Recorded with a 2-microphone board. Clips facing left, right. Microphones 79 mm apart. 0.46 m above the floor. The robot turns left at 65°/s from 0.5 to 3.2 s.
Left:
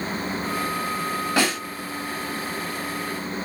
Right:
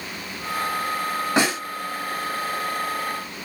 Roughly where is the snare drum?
Right.